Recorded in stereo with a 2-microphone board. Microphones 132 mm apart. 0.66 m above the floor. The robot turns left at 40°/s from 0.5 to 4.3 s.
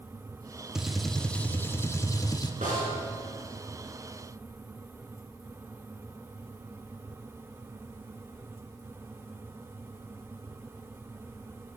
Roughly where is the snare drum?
Right.